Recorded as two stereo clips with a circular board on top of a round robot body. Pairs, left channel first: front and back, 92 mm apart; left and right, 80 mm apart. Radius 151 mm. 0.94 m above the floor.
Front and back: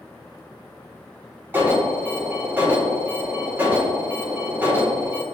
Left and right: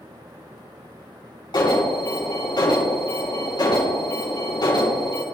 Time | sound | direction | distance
1.5 | an alarm | 115° left | 5 m